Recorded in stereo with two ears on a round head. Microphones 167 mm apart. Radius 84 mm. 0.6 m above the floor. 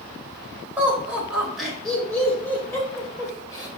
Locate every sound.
0.8 s laughter: 10° right (ahead or behind), 3 m; by 3.7 s 20° left (ahead or behind), 3 m